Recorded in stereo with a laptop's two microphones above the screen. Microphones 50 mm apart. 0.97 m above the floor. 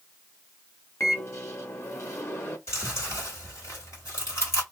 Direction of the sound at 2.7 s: 55° left (ahead or behind).